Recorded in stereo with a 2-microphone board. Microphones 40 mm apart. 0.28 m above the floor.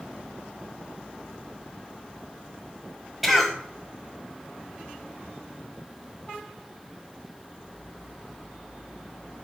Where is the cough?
5° right (ahead or behind), 1.7 m.